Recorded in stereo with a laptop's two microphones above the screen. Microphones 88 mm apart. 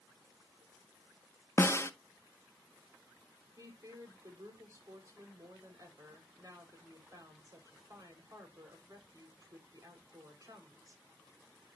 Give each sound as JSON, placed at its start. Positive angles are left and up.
{"t": 1.6, "sound": "a snare drum", "side_deg": 30, "distance_m": 0.6}
{"t": 3.6, "sound": "a woman speaking", "side_deg": -40, "distance_m": 4.5}